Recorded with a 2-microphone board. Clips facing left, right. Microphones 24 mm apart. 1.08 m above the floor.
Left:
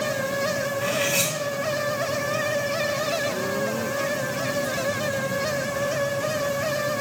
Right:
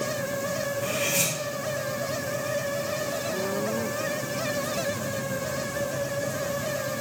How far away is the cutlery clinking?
About 2.5 m.